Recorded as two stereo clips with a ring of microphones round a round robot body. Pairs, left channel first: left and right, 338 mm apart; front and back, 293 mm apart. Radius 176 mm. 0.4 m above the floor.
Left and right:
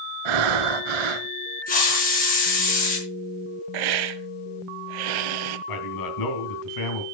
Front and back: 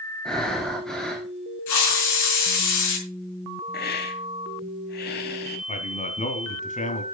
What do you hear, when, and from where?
0.2 s breathing: 90° right, 1.0 m
1.7 s a hiss: 25° left, 5 m
3.7 s a hiss: 65° right, 0.7 m
5.7 s a man speaking: 65° left, 3 m